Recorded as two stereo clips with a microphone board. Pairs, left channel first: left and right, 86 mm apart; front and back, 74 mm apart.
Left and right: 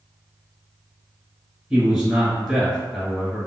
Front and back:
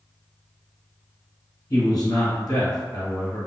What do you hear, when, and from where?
1.7 s a man speaking: 10° right, 1.9 m